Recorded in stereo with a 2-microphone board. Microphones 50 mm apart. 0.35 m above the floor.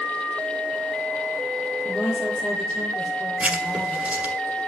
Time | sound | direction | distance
1.9 | a woman speaking | 25° left (ahead or behind) | 8 m
3.4 | writing | 25° right (ahead or behind) | 1.6 m